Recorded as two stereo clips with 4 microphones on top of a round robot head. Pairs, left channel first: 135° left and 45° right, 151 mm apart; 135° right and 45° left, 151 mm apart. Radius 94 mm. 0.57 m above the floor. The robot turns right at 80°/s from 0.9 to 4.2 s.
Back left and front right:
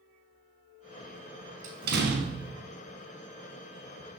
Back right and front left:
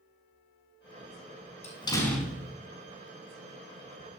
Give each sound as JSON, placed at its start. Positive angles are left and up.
{"t": 1.6, "sound": "a door slam", "azimuth_deg": -90, "distance_m": 4.5}